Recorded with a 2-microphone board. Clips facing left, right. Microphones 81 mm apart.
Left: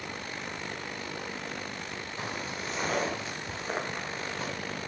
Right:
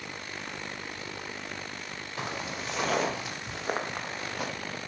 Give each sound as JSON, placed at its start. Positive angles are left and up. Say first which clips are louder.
{"t": 2.2, "sound": "footsteps", "louder": "right 2 dB", "side_deg": -85, "distance_m": 4.0}